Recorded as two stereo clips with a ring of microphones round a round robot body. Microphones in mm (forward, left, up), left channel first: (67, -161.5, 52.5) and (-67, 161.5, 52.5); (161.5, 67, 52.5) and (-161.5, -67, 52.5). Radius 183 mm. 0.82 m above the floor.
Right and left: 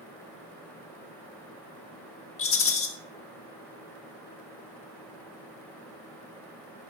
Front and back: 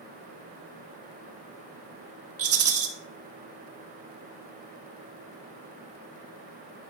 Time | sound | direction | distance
2.4 | a rattle | 115° right | 1.5 m